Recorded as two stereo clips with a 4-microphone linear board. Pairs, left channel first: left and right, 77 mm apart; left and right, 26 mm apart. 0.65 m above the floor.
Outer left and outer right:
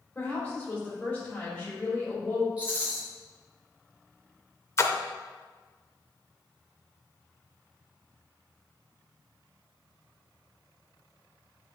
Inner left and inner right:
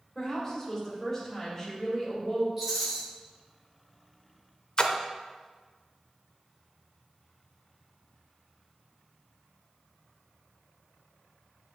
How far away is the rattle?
About 3 m.